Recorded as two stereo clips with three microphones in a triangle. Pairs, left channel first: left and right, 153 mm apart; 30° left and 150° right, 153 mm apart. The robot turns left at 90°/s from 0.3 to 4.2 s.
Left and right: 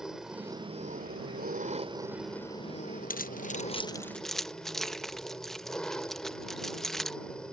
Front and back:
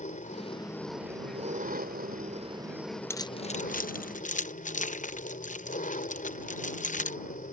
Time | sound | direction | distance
0.0 | an engine running | 5° right | ?
3.1 | keys jangling | 100° left | ?